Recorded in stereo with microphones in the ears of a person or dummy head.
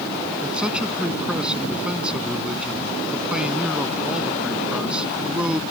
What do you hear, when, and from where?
0.4 s a man speaking: 5° right (ahead or behind)